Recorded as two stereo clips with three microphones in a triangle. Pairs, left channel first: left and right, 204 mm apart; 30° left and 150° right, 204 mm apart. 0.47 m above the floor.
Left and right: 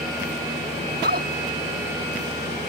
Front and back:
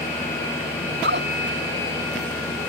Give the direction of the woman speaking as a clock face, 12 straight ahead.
4 o'clock.